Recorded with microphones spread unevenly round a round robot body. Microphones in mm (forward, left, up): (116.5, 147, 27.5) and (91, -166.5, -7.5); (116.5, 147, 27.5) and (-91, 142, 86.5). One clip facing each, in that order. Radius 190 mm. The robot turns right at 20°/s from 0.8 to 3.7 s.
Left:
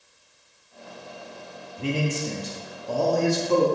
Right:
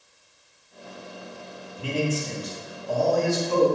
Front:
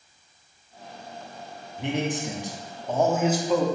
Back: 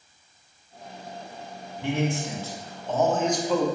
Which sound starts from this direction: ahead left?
A man speaking, at 1.8 s.